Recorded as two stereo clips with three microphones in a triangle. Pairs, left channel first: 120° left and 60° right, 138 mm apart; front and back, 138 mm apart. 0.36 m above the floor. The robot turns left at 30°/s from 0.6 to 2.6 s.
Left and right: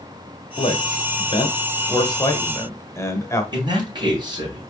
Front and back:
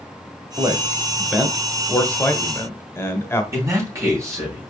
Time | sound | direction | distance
0.6 | a man speaking | 120° left | 1.0 m
3.5 | a man speaking | 115° right | 3 m